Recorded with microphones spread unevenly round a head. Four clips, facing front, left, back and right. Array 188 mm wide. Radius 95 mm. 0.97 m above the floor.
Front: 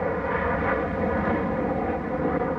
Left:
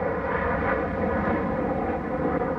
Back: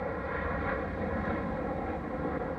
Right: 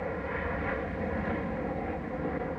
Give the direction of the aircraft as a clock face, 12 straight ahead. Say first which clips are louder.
Left 8 dB, front 9 dB; 11 o'clock.